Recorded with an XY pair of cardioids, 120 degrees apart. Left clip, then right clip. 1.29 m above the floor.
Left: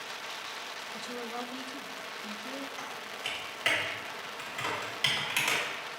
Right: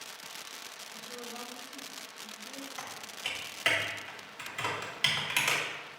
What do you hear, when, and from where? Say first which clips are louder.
0.9 s a woman speaking: left 4 dB; 45° left, 0.6 m
2.8 s typing on a keyboard: left 2 dB; 10° right, 1.8 m